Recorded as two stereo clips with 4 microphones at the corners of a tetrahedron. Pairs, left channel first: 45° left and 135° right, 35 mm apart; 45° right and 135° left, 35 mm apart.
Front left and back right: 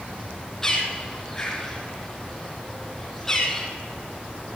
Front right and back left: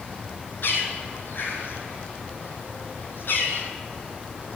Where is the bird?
35° right, 2.5 m.